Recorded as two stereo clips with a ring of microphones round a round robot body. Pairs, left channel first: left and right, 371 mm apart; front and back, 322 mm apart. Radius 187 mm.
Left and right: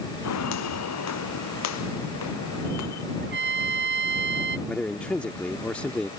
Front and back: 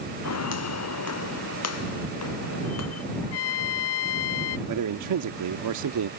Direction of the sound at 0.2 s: 40° left.